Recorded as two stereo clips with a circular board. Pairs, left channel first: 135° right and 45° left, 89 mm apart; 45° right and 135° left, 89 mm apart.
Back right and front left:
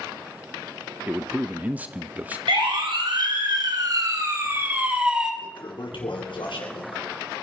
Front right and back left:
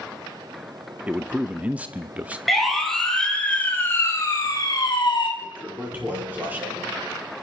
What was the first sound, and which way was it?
A man speaking, 85° left.